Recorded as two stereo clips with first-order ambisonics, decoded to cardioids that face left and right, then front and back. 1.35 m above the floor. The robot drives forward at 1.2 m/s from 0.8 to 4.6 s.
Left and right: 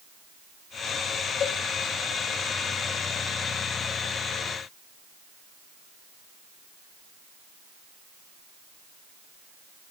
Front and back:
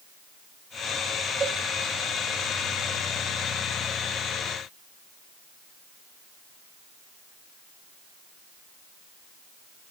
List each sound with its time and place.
1.4 s a cowbell: 115° left, 0.7 m; by 1.6 s 135° left, 0.8 m